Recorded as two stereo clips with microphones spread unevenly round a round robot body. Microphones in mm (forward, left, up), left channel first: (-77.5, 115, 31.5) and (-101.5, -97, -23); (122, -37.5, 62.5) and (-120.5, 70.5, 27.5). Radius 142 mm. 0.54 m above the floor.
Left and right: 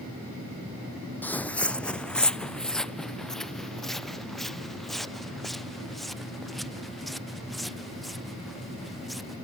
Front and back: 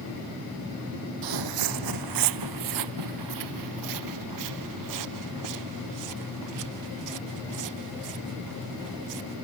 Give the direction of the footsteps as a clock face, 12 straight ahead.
7 o'clock.